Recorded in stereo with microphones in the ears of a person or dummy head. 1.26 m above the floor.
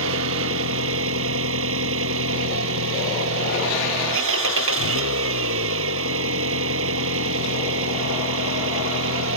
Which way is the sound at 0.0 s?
80° right.